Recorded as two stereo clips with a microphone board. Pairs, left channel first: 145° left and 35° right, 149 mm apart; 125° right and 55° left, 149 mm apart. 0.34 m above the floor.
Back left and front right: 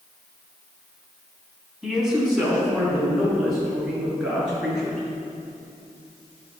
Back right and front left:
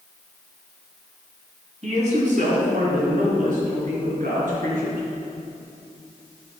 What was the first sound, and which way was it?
A man speaking, 50° left.